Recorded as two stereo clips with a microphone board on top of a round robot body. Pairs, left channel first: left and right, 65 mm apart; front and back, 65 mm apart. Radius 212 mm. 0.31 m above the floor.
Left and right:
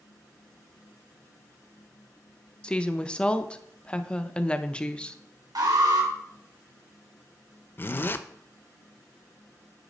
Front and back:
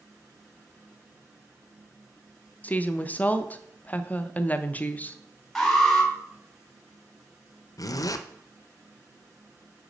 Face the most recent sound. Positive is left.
turn(degrees=30)